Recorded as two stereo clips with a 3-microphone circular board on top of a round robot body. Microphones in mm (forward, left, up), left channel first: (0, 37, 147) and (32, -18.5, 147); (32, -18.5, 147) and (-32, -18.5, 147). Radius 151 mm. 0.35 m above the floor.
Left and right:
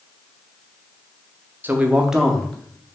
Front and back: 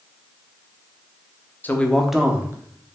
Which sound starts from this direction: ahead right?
A man speaking, at 1.6 s.